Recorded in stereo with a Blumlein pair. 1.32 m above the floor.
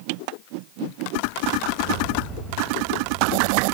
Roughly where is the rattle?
Ahead right.